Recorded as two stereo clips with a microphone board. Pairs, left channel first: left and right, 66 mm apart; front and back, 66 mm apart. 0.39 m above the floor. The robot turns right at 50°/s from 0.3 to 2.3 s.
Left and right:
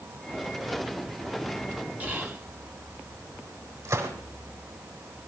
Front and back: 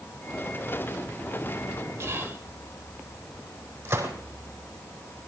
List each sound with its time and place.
2.0 s whispering: 145° right, 1.3 m; by 2.5 s 130° right, 1.3 m
3.9 s a gunshot: 125° right, 3.5 m